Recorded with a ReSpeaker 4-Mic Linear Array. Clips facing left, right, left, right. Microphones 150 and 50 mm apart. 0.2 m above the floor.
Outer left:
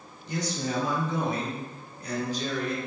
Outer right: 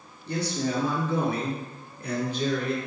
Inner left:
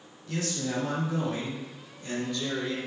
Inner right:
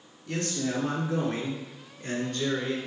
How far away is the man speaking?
About 4 m.